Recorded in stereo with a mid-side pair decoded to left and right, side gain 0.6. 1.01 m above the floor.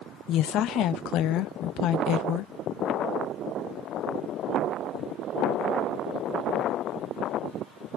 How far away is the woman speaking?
About 0.7 m.